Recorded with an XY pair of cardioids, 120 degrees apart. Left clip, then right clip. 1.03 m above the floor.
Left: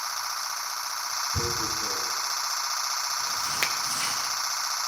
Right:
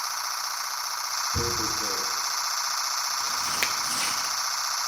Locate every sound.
1.3 s tearing paper: 10° right, 1.3 m
3.6 s a finger snap: straight ahead, 0.6 m